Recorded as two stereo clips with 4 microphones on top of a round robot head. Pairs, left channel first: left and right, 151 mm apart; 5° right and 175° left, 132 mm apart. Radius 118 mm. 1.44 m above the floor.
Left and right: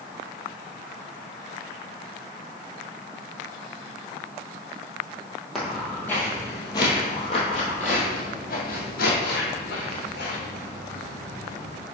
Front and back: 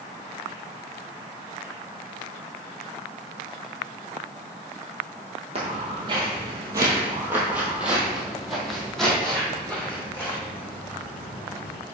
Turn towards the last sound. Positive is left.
turn(degrees=65)